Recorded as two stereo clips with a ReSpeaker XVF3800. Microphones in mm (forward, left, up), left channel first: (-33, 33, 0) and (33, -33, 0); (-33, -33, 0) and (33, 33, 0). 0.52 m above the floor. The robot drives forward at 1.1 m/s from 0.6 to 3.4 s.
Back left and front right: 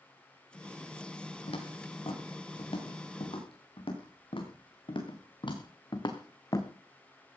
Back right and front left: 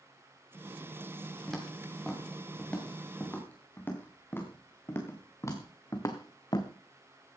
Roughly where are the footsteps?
Behind left.